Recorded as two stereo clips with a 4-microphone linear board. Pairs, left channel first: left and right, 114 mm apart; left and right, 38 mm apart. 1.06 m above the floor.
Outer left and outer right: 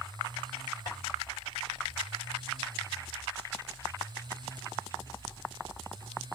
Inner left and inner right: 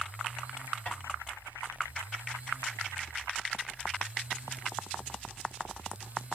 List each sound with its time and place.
0.9 s tapping: 40° left (ahead or behind), 2.5 m